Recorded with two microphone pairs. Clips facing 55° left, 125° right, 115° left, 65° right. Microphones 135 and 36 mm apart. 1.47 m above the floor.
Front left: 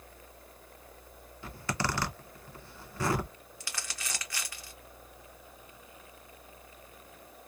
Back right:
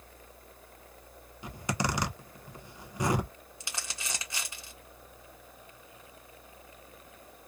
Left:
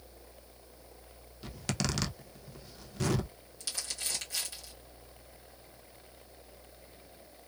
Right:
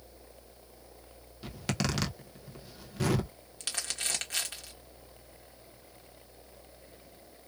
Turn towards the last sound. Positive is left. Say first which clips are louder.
# back right 1 dB, right 3 dB
turn(degrees=-65)